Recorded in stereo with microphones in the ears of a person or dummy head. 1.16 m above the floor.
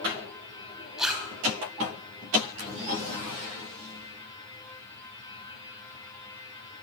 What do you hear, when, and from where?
1.0 s a zipper: 5° right (ahead or behind), 3 m